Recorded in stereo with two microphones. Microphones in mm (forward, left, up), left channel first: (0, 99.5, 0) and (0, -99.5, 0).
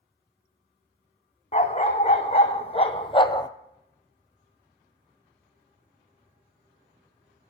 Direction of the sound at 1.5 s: 35° left (ahead or behind).